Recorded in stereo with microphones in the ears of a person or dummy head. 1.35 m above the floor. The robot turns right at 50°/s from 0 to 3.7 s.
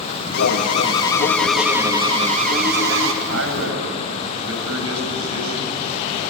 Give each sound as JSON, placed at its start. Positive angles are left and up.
{"t": 0.3, "sound": "an alarm", "azimuth_deg": 115, "distance_m": 2.5}
{"t": 3.2, "sound": "a man speaking", "side_deg": -80, "distance_m": 9.5}